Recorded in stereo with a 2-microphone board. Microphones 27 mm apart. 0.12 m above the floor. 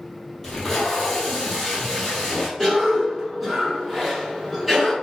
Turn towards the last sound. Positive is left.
turn(degrees=5)  # may be behind; listen again after turning